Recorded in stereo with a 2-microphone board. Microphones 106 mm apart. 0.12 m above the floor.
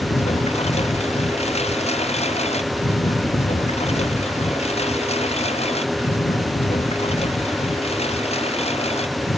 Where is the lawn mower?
85° left; by 9.4 s 75° left (ahead or behind).